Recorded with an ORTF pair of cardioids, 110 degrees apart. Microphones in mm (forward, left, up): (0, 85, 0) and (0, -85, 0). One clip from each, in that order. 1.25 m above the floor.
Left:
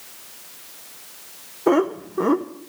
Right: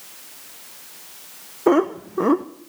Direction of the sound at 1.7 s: 20° right.